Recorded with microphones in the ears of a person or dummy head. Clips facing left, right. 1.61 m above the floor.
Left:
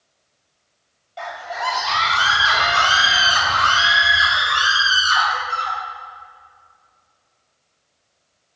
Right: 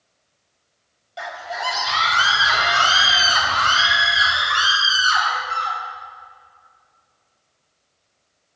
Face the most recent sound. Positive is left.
turn(degrees=0)  # may be behind; listen again after turning